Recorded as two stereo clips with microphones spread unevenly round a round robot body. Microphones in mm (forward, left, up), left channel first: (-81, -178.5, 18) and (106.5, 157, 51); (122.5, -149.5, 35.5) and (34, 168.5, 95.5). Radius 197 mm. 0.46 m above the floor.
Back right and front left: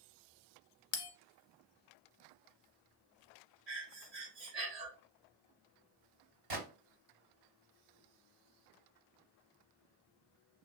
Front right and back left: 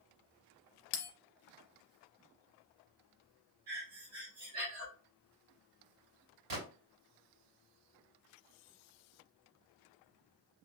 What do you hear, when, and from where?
0.9 s a bell: 110° right, 0.7 m
3.7 s breathing: 130° left, 1.9 m
6.5 s a gunshot: 90° left, 2.5 m